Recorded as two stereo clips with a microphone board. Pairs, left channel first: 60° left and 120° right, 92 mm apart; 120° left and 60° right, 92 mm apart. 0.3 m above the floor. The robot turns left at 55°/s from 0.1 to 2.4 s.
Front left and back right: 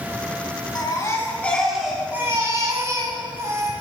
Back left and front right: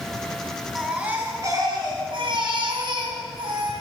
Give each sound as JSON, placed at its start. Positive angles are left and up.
{"t": 0.8, "sound": "a baby crying", "azimuth_deg": 25, "distance_m": 2.0}